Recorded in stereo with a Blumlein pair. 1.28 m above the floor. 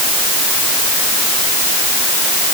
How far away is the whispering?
I don't hear whispering.